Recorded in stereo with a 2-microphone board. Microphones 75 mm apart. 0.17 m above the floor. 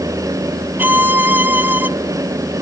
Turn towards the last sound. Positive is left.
turn(degrees=-25)  # may be behind; listen again after turning